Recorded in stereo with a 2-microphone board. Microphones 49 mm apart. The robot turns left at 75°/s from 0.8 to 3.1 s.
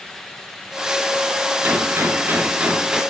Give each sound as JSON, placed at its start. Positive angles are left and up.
{"t": 1.6, "sound": "a gunshot", "azimuth_deg": -65, "distance_m": 1.0}